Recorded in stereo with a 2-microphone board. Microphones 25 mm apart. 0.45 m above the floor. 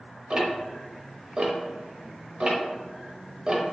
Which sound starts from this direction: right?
Ticking, at 0.3 s.